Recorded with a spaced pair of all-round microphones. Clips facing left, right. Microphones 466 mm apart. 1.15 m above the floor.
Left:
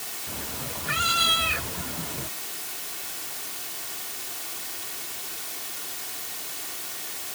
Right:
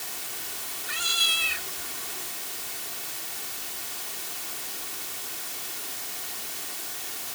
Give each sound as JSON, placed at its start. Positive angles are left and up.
{"t": 0.3, "sound": "a cat meowing", "side_deg": 75}